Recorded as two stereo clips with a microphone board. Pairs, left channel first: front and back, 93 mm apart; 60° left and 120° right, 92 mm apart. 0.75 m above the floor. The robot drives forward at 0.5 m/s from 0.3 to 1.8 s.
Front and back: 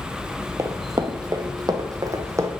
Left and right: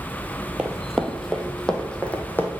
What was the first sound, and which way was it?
Running footsteps, 170° left.